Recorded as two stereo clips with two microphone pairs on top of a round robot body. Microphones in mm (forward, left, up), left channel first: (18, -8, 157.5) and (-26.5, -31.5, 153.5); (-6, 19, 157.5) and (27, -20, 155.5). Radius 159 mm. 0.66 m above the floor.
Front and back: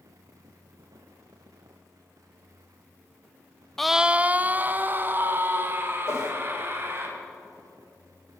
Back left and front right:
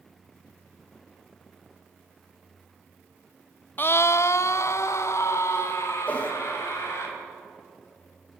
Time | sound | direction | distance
3.8 | a scream | 115° left | 0.5 m
6.1 | a whoosh | 70° left | 2.5 m